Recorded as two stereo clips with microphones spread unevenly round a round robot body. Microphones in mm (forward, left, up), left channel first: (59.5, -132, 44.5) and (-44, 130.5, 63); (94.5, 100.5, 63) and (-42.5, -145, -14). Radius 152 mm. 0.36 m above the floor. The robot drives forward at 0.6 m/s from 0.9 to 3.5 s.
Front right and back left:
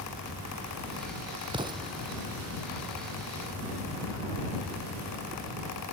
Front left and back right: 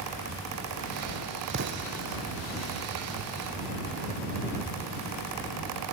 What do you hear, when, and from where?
1.5 s an explosion: 175° right